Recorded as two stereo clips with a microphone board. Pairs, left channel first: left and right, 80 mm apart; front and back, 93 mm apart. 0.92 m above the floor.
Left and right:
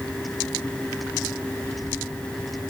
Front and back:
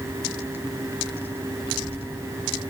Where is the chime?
No chime in this recording.